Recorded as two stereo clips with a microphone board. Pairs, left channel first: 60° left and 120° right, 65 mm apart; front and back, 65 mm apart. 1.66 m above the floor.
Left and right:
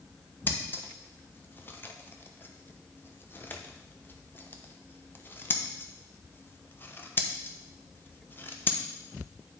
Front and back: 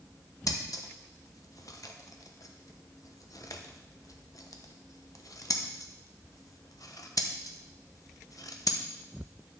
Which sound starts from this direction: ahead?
Scissors, at 0.5 s.